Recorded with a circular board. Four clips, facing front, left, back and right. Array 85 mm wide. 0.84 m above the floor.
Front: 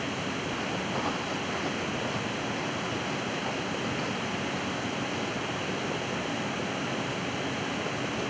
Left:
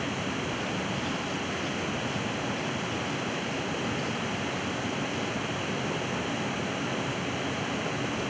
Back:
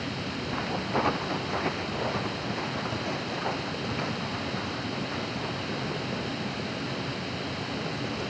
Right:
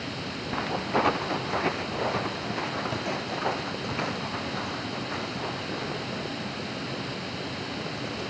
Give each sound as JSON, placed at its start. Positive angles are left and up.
{"t": 0.5, "sound": "footsteps", "azimuth_deg": -110}